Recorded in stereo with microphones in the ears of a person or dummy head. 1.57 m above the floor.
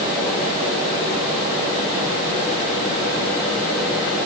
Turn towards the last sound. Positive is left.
No sound to turn to.